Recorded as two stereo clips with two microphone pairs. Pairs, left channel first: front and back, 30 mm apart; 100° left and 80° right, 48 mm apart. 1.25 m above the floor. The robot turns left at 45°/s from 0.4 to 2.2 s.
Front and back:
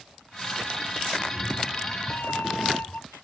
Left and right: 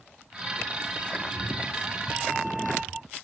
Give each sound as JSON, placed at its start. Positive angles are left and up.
{"t": 1.2, "sound": "a cat meowing", "azimuth_deg": 45}